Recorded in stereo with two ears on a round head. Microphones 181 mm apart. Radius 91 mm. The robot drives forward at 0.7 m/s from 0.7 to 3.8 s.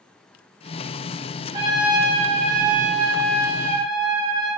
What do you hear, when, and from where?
1.5 s a trumpet: 20° right (ahead or behind), 0.9 m